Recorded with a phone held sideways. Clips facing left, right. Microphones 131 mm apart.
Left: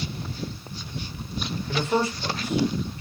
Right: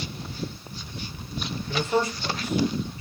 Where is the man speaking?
65° left (ahead or behind), 2 m.